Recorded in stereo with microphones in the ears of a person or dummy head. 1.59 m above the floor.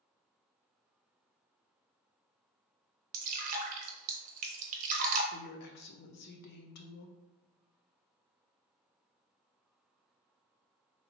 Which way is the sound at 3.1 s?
45° right (ahead or behind).